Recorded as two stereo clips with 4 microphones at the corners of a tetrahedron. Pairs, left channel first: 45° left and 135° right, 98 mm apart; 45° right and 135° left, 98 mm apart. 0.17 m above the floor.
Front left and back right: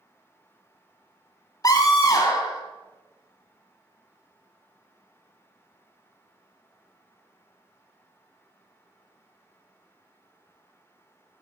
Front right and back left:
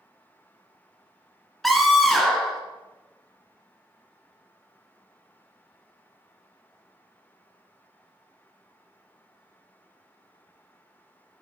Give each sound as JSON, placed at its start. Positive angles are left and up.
{"t": 1.6, "sound": "a scream", "azimuth_deg": 45, "distance_m": 1.7}